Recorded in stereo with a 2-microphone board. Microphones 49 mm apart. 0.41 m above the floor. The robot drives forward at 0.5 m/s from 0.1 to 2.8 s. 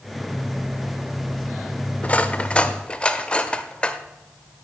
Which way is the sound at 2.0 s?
30° left (ahead or behind).